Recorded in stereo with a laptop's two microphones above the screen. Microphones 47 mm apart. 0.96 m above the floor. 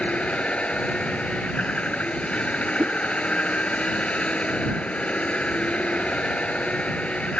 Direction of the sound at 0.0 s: 25° left (ahead or behind).